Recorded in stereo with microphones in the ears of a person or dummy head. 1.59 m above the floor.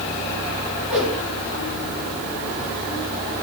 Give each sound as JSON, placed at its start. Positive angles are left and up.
{"t": 0.9, "sound": "a whoosh", "side_deg": -5, "distance_m": 1.2}